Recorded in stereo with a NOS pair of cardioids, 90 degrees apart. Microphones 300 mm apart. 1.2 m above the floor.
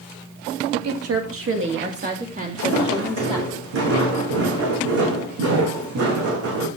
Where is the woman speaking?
65° right, 2 m; by 3.5 s 15° right, 3.5 m.